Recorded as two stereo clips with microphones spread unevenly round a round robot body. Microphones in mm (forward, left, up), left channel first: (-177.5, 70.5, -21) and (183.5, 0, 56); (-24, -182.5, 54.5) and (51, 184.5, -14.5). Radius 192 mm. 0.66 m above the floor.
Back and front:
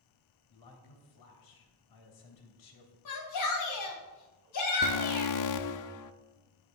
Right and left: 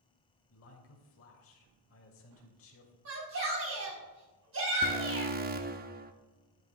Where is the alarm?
140° left, 0.8 m.